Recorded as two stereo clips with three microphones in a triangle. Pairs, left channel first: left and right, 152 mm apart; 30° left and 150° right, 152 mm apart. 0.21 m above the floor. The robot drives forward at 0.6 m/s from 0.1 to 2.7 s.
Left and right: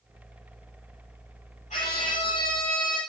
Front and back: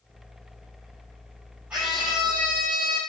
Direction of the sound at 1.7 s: 130° left.